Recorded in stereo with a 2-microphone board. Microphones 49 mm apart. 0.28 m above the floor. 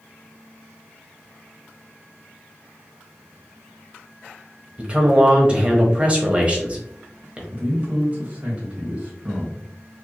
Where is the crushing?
No crushing in this recording.